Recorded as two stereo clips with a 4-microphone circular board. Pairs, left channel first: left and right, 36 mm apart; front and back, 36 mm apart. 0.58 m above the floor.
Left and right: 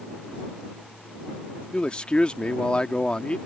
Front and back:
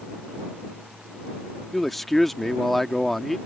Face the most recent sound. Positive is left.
turn(degrees=80)